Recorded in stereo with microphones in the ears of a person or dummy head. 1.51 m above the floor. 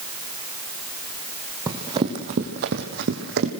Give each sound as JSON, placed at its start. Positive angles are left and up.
{"t": 1.7, "sound": "running footsteps", "side_deg": -15, "distance_m": 2.5}